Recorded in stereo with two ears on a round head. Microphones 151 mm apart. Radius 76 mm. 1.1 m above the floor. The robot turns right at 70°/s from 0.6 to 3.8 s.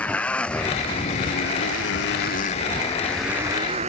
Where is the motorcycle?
10° left (ahead or behind); by 3.9 s 40° right (ahead or behind).